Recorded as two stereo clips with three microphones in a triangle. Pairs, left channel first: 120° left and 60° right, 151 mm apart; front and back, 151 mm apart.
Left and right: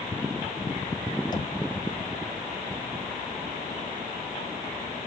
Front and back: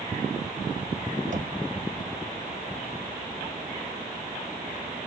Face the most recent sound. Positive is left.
turn(degrees=175)